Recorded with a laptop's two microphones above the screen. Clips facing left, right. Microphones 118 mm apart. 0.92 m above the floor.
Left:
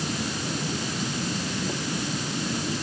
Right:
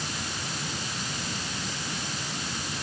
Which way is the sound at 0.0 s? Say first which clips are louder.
Left 6 dB; 60° left (ahead or behind).